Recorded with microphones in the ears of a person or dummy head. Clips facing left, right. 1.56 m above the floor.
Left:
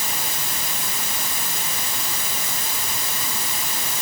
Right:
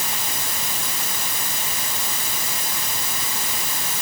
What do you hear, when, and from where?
Only background noise.